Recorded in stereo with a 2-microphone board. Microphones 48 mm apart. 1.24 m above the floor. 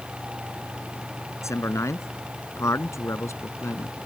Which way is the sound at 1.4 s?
90° left.